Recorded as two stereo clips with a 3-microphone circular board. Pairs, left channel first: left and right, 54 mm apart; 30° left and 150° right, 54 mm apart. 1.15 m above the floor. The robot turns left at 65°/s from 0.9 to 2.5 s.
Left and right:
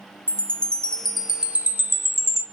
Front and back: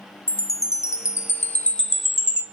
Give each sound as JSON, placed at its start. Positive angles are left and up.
{"t": 0.3, "sound": "a chime", "azimuth_deg": 20, "distance_m": 0.5}